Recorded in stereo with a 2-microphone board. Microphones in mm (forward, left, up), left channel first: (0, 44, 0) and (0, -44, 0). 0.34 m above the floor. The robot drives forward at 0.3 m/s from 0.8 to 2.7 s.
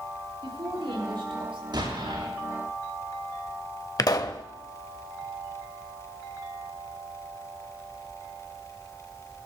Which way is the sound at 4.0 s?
45° left (ahead or behind).